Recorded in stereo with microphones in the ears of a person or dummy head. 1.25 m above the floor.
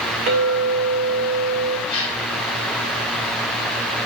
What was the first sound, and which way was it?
A clink, 45° right (ahead or behind).